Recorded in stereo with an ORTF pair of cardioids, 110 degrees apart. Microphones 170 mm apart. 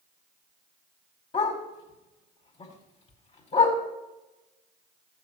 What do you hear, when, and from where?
1.3 s a dog barking: 40° left, 5 m